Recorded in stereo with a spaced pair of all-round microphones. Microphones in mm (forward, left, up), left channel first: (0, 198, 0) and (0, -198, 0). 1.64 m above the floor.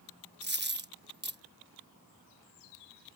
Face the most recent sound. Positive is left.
turn(degrees=-25)  # may be behind; listen again after turning